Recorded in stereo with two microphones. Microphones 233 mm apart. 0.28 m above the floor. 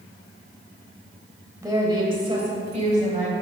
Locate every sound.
1.6 s a woman speaking: 15° right (ahead or behind), 1.2 m; by 3.3 s 30° right (ahead or behind), 1.5 m